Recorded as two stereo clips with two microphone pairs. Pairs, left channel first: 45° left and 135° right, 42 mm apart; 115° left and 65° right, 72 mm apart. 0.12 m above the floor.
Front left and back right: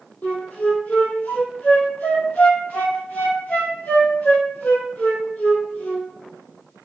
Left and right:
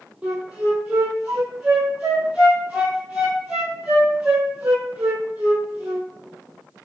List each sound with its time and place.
0.2 s a flute: 5° left, 0.9 m